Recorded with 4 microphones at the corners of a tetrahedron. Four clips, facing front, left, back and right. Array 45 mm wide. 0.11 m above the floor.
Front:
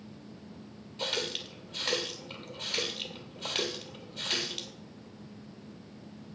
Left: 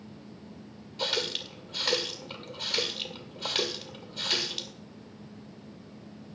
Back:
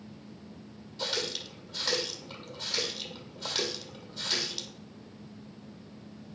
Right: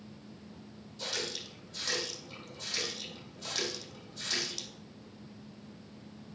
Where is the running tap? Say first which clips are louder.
Left 7 dB, even; 65° left, 2 m.